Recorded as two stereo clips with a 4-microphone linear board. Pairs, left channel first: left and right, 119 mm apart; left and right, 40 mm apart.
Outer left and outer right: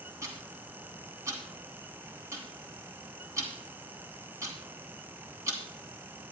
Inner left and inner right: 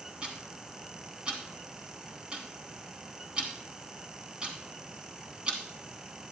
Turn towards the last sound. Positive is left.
turn(degrees=-25)  # may be behind; listen again after turning